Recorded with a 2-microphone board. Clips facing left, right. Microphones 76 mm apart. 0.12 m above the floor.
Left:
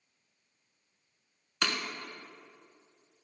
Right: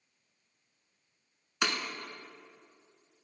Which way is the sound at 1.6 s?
10° right (ahead or behind).